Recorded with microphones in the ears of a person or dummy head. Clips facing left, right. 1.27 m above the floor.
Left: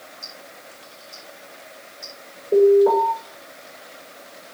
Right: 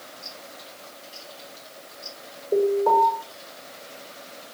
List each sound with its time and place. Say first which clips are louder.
0.2 s ticking: even; 50° left (ahead or behind), 5.5 m
2.5 s an alarm: left 7 dB; 25° left (ahead or behind), 6.5 m